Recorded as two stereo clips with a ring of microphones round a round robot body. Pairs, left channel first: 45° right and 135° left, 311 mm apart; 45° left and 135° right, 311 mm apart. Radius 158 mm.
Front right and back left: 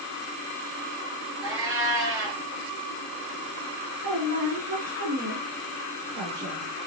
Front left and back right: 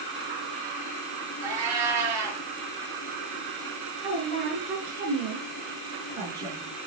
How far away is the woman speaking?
About 5 m.